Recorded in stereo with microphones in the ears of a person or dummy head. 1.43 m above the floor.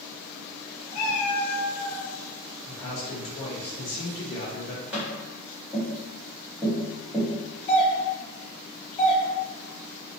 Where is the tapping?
5° right (ahead or behind), 0.9 m.